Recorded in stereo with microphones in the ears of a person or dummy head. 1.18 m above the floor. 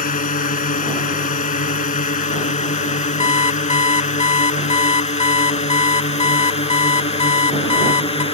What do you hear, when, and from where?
0.0 s a drone: 45° left (ahead or behind); by 8.3 s 35° left (ahead or behind)
3.2 s an alarm clock: 40° left (ahead or behind)